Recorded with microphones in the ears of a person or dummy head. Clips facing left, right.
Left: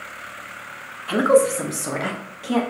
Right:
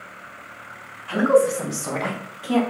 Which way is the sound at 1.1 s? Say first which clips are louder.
Left 1 dB; 50° left (ahead or behind).